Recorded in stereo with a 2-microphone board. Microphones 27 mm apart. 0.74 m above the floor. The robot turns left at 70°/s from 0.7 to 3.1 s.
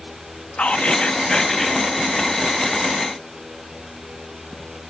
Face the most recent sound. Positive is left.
turn(degrees=-90)